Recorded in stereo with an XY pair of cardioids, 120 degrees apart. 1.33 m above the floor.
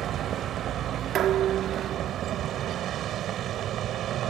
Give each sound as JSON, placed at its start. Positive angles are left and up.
{"t": 0.0, "sound": "a vehicle", "azimuth_deg": -65}
{"t": 1.1, "sound": "dishes clattering", "azimuth_deg": -65}